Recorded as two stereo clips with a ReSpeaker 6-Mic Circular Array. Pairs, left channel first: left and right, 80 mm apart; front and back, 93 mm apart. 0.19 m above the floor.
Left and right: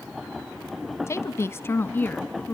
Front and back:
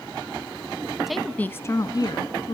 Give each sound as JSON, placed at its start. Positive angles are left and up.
{"t": 1.1, "sound": "a woman speaking", "azimuth_deg": 95, "distance_m": 1.2}